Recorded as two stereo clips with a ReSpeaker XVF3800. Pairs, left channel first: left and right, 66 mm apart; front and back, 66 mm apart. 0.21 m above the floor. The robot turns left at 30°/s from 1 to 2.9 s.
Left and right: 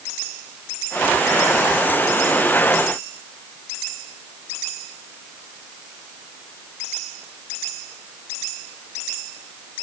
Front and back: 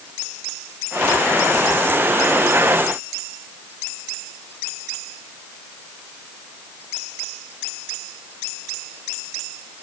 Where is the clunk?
I don't hear a clunk.